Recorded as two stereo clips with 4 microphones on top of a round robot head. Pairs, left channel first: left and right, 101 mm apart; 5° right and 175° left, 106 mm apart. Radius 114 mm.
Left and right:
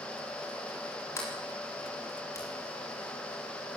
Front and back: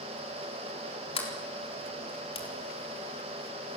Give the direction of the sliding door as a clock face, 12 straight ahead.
11 o'clock.